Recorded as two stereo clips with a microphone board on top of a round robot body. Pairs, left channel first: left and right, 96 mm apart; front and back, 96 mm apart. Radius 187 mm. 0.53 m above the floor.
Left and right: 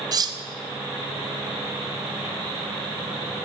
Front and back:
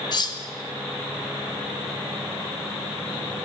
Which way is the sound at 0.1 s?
40° right.